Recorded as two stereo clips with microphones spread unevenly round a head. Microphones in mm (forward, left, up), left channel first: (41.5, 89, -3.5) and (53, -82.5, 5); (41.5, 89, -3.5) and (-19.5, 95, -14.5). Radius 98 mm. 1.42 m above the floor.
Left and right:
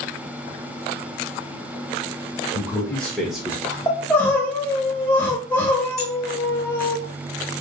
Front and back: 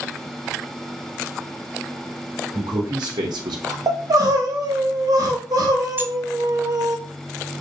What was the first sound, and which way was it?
A man speaking, 175° left.